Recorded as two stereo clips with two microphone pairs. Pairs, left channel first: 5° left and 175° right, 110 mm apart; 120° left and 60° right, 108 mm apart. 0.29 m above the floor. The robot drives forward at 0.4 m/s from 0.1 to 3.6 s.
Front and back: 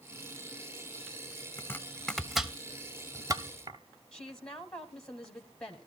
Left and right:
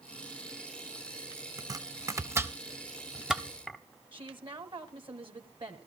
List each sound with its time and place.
1.6 s chopping: 40° right, 0.8 m; by 3.8 s 145° right, 0.8 m
4.1 s a woman speaking: 70° right, 1.4 m